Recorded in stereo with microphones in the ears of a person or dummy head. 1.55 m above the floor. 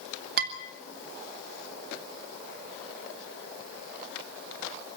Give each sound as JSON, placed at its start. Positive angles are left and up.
{"t": 0.4, "sound": "dishes clattering", "side_deg": -55, "distance_m": 3.0}